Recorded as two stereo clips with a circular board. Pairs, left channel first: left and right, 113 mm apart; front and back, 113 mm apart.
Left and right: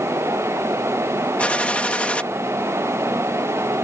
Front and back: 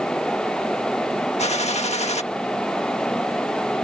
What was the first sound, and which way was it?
A gunshot, 10° left.